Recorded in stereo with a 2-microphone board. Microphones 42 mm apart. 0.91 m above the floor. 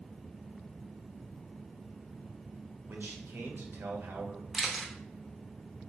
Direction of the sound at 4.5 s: 5° right (ahead or behind).